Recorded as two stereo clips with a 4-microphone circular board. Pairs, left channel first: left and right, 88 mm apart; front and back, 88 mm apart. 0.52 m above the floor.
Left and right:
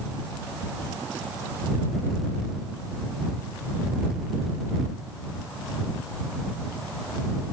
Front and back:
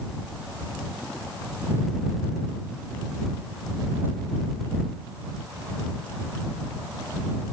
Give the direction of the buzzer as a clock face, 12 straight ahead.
No buzzer in this recording.